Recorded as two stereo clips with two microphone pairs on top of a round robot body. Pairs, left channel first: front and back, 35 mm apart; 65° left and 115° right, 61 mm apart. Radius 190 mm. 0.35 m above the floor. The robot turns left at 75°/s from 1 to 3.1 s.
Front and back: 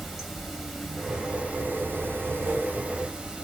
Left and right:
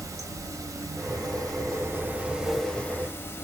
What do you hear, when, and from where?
0.0 s running water: 95° right, 0.8 m; by 3.5 s 110° left, 0.8 m